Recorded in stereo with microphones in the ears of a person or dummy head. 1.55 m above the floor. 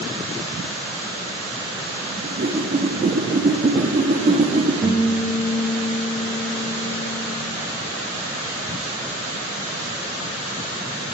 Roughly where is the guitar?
Centre.